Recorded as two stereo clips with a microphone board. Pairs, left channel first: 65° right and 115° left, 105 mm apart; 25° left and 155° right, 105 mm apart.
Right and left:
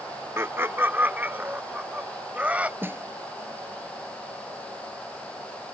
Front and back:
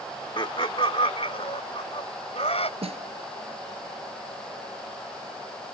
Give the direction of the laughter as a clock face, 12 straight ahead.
10 o'clock.